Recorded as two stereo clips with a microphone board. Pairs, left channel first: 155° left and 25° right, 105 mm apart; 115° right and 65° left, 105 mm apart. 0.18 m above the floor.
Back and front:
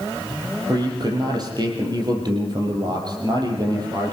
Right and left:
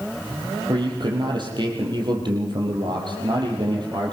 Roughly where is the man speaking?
Ahead left.